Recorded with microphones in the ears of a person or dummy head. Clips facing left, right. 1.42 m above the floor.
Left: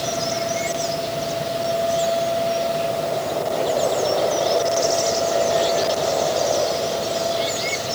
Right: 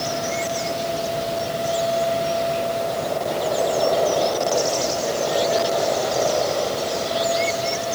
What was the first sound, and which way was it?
Only background noise.